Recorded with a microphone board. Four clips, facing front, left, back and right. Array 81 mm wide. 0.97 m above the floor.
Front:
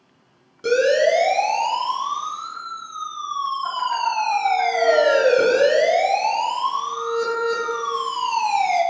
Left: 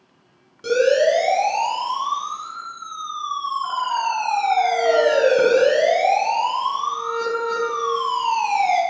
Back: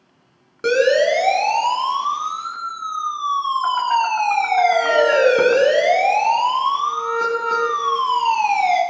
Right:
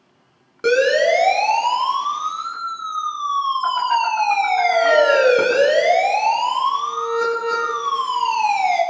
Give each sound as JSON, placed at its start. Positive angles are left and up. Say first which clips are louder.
{"t": 0.6, "sound": "a siren", "louder": "right 1 dB, back 1 dB", "azimuth_deg": -135, "distance_m": 9.0}